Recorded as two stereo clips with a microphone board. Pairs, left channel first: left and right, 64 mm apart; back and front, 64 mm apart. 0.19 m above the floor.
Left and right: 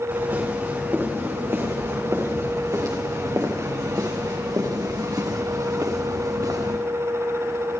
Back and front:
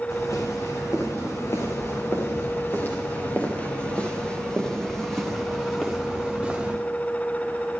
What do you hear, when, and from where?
0.1 s footsteps: 150° right, 6 m; by 6.8 s 75° right, 5.5 m